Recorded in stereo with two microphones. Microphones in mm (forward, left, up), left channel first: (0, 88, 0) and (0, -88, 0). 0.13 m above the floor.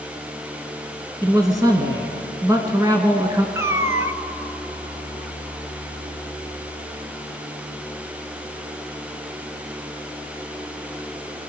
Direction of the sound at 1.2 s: 20° right (ahead or behind).